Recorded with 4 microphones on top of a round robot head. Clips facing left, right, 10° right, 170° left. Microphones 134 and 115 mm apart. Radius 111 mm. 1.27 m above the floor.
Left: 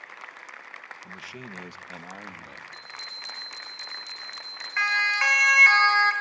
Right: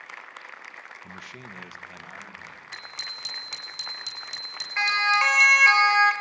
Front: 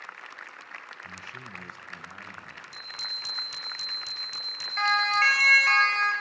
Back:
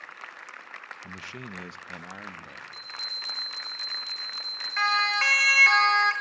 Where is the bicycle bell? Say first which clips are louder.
Right 1 dB, back 1 dB; 75° right, 5.5 m.